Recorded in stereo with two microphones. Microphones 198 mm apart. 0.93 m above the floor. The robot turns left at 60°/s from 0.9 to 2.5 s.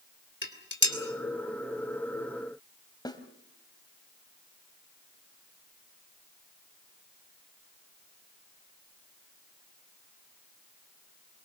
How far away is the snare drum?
About 2 m.